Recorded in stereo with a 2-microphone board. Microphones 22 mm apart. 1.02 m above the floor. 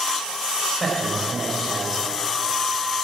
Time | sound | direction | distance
0.8 | a man speaking | 10° left (ahead or behind) | 5 m